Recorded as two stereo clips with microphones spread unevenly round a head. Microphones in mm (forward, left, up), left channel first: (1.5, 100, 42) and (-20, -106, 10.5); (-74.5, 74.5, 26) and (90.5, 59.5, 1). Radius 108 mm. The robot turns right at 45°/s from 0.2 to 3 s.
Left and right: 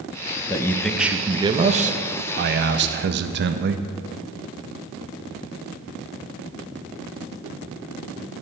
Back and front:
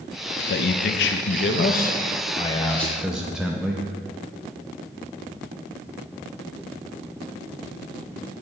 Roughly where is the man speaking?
Behind.